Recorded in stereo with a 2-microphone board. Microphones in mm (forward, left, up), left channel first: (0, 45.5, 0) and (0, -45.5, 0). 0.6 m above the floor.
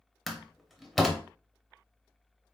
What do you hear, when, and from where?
0.3 s a door slam: centre (ahead or behind), 0.7 m